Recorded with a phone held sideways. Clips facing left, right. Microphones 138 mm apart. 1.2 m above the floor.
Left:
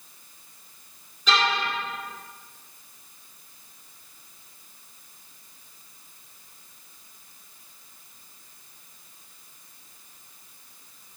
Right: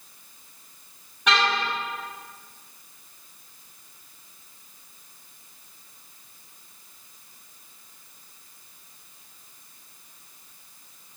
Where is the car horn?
70° right (ahead or behind), 6.5 m.